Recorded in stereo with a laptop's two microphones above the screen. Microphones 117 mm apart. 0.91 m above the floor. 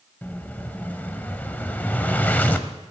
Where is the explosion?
15° left (ahead or behind), 0.7 m.